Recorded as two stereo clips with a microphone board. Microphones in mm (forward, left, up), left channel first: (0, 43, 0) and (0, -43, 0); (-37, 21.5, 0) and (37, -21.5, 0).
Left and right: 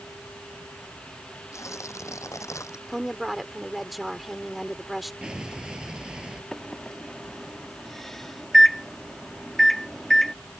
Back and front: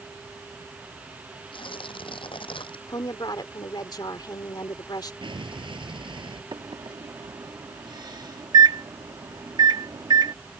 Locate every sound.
1.5 s tearing paper: 145° left
2.9 s a woman speaking: straight behind
5.2 s an explosion: 10° right
6.5 s a microwave: 5° left